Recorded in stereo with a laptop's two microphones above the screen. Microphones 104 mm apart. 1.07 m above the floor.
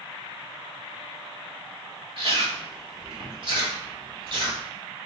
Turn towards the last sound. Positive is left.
turn(degrees=-50)  # may be behind; listen again after turning